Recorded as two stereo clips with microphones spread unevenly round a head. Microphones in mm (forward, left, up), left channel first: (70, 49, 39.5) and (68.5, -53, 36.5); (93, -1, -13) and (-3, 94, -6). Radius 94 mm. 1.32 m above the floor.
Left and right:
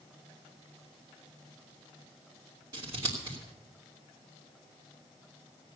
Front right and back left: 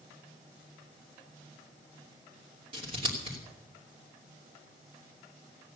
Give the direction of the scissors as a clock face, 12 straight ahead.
5 o'clock.